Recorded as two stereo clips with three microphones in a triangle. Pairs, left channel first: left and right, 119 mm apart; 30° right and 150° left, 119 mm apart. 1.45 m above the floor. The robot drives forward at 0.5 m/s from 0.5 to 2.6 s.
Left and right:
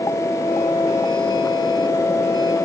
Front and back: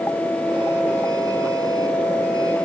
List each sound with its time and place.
Only background noise.